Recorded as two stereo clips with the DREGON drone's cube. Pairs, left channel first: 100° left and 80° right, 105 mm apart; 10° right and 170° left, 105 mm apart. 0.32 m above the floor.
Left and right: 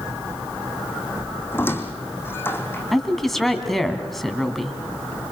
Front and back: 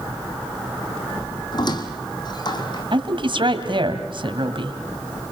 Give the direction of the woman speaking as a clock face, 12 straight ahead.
6 o'clock.